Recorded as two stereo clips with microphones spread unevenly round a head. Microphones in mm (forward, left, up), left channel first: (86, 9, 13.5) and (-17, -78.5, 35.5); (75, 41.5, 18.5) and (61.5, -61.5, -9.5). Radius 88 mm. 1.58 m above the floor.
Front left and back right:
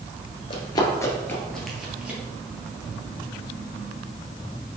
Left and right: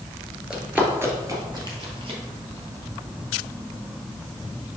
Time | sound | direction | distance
0.5 | running footsteps | 5° left | 1.9 m